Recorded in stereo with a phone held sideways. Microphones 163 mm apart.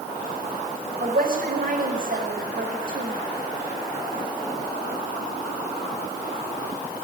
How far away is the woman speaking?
About 6 m.